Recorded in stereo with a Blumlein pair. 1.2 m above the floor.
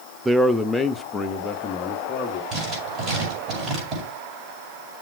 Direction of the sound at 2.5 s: 25° right.